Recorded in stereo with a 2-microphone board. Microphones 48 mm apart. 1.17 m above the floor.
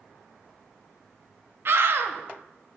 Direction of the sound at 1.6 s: 55° right (ahead or behind).